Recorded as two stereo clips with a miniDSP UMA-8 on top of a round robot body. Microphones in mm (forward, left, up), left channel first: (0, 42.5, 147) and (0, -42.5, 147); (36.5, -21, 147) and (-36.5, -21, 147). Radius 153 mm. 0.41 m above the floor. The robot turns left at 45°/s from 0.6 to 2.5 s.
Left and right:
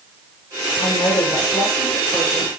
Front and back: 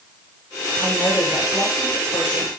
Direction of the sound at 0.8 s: 75° left.